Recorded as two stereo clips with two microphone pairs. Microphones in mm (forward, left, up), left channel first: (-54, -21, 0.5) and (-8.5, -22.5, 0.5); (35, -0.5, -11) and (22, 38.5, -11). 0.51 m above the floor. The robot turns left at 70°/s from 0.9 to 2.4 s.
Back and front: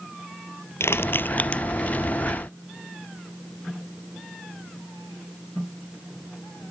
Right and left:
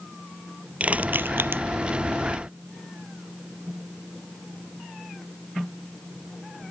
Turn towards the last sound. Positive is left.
turn(degrees=55)